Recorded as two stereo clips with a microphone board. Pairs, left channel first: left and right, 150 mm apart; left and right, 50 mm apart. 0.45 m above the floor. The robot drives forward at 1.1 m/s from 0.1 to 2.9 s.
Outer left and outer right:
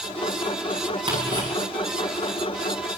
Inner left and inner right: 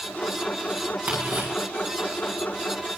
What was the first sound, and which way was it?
Ticking, 40° right (ahead or behind).